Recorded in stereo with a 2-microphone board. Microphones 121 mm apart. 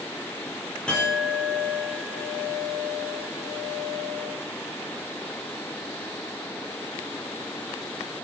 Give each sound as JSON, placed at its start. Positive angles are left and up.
{"t": 0.9, "sound": "a clink", "side_deg": 10, "distance_m": 10.0}